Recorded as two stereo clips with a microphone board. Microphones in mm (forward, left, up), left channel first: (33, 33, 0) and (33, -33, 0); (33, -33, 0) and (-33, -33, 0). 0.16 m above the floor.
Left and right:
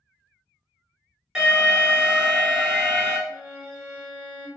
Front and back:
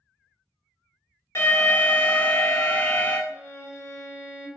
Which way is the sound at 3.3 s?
105° right.